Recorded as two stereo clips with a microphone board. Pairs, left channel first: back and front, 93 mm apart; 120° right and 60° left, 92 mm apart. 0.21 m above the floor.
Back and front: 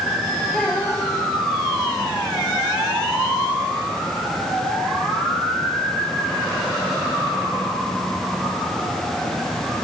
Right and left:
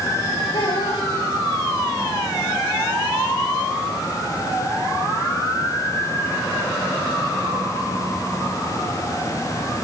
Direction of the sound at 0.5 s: 100° right.